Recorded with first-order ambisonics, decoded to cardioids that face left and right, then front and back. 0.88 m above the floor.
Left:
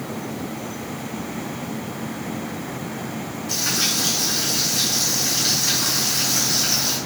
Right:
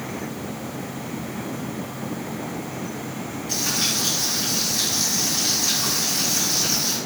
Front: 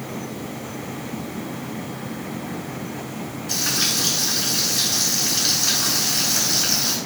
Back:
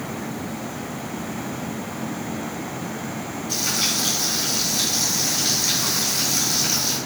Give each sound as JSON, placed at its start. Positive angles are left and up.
{"t": 3.5, "sound": "frying", "azimuth_deg": 20, "distance_m": 4.0}